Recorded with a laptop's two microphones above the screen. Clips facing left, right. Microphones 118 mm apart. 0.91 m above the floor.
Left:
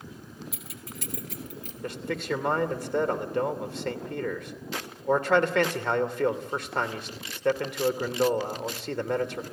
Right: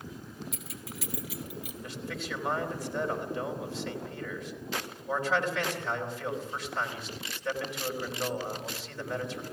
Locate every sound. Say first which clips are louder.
0.5 s keys jangling: even; centre (ahead or behind), 2 m; by 1.7 s 10° right (ahead or behind), 2.5 m
1.8 s a man speaking: left 9 dB; 60° left (ahead or behind), 2.5 m